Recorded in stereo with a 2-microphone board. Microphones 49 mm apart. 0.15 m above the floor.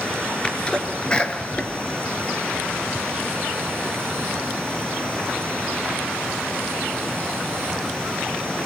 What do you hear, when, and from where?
0.4 s a sneeze: 20° left (ahead or behind), 3 m